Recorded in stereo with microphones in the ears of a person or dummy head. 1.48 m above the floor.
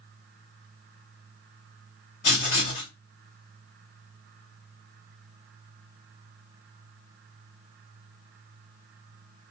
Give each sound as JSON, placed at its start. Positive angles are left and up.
{"t": 2.2, "sound": "writing", "side_deg": 35, "distance_m": 1.8}